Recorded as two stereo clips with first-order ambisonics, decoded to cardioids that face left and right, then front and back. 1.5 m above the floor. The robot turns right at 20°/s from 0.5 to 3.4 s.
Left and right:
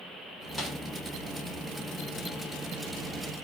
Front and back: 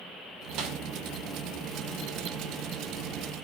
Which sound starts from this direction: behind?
A snare drum, at 0.6 s.